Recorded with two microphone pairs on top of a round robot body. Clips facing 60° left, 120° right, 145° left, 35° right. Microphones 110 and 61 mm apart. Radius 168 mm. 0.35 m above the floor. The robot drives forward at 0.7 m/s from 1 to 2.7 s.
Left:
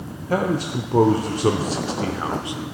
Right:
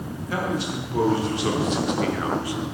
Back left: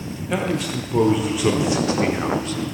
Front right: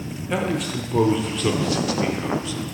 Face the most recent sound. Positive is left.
turn(degrees=120)